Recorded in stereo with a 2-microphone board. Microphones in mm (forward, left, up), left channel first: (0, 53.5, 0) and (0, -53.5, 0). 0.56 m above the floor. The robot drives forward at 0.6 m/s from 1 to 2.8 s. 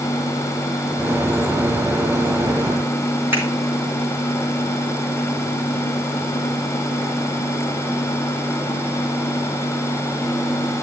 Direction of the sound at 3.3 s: 25° right (ahead or behind).